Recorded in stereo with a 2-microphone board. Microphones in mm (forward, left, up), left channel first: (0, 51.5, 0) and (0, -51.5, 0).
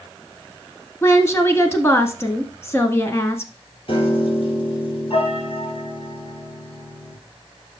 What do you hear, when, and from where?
1.0 s a woman speaking: 25° left (ahead or behind), 1.1 m
3.9 s a piano: 60° left (ahead or behind), 4 m